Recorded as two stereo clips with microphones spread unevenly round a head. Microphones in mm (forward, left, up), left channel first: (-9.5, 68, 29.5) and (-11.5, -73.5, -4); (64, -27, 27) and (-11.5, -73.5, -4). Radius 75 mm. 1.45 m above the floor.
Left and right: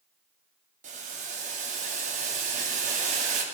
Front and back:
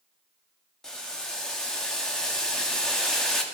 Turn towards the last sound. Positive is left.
turn(degrees=-45)